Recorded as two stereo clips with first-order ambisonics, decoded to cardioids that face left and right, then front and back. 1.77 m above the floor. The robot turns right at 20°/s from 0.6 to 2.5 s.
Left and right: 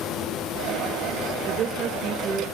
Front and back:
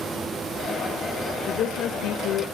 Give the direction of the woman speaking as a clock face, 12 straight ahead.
2 o'clock.